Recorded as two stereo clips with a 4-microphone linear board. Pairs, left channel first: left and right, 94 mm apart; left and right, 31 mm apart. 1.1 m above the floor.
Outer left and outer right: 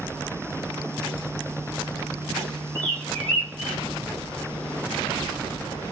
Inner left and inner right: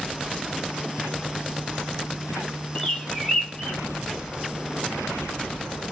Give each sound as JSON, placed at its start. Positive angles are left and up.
{"t": 2.8, "sound": "a bird", "side_deg": 15, "distance_m": 2.5}